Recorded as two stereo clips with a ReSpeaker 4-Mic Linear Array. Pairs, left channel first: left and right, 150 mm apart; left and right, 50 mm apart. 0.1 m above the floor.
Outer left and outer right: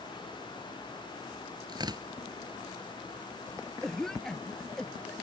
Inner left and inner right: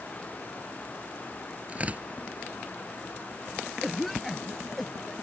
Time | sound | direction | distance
1.7 | tearing paper | 30° right (ahead or behind) | ?
3.8 | a cough | 5° left (ahead or behind) | ?